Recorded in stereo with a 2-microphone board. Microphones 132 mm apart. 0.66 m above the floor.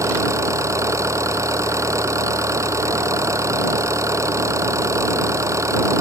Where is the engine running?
25° right (ahead or behind).